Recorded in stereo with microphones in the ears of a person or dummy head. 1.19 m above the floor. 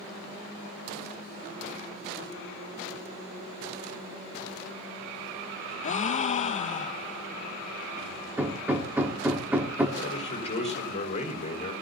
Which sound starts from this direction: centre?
Hammering, at 8.4 s.